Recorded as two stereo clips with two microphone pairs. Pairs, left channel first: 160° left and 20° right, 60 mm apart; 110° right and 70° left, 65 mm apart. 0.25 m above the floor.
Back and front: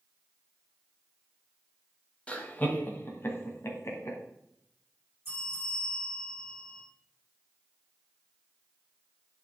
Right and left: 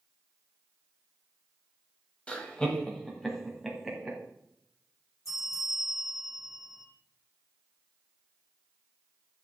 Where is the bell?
80° right, 4.5 m.